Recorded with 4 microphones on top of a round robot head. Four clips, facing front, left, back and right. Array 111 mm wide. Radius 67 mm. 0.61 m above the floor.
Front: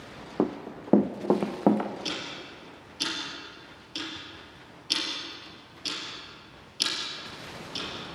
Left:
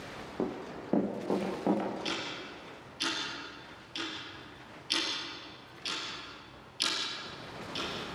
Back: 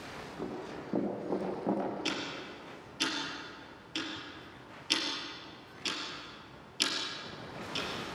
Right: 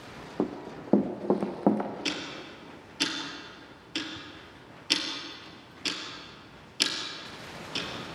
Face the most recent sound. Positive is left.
turn(degrees=-90)